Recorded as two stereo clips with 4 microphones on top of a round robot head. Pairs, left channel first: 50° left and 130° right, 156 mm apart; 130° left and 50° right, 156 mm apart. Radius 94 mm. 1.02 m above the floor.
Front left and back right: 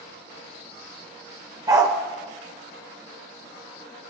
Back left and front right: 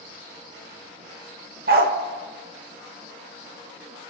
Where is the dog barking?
65° right, 0.9 m.